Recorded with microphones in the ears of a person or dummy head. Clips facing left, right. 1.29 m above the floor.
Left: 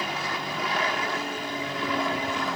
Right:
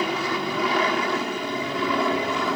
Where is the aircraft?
60° right (ahead or behind); by 2.6 s 65° right (ahead or behind).